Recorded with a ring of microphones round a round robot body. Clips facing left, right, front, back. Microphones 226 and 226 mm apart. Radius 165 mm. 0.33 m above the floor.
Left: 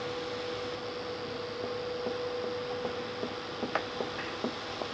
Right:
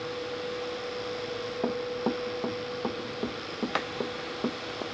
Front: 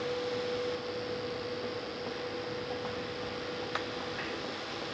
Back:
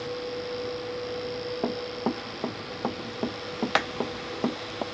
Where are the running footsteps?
135° right; by 4.8 s 160° right.